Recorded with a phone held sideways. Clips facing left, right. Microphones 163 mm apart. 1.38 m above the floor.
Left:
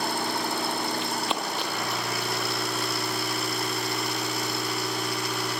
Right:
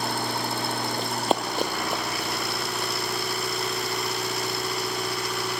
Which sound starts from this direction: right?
Running footsteps, at 1.0 s.